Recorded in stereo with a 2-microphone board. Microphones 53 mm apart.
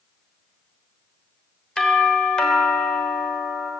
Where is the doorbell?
15° left (ahead or behind), 3.5 m.